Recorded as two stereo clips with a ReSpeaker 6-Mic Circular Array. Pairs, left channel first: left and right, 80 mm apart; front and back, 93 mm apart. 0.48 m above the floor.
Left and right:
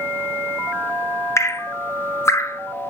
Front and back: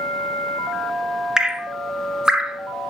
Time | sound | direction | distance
1.4 | dripping | 105° left | 0.9 m